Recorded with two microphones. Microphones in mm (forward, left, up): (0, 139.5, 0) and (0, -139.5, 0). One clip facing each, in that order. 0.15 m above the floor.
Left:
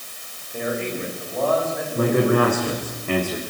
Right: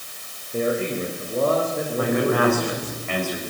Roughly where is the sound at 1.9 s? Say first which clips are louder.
Left 3 dB; left.